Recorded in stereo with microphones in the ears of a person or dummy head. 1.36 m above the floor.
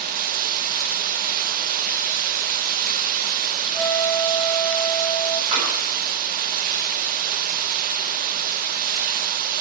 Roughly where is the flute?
Centre.